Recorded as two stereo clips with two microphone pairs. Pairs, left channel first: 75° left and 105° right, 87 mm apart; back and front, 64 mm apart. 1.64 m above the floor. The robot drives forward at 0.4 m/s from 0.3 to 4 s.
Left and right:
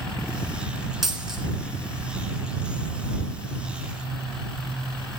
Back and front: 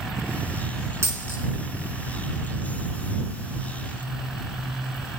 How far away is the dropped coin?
About 2.5 m.